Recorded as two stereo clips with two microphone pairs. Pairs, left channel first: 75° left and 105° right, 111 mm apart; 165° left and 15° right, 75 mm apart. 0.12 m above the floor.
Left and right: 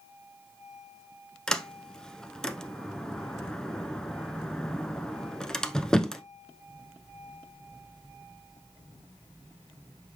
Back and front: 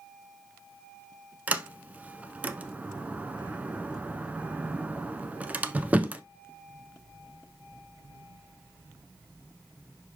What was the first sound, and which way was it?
A sliding door, 10° left.